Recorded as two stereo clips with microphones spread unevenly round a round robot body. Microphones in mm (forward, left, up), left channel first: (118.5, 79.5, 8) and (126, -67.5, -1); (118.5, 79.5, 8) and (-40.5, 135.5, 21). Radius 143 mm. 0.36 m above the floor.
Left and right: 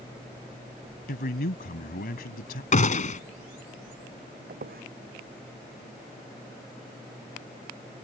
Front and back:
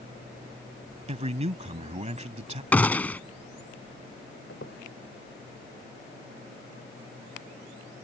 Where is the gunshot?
60° left.